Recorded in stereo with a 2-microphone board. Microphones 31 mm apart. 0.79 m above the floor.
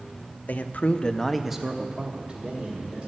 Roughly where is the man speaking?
Left.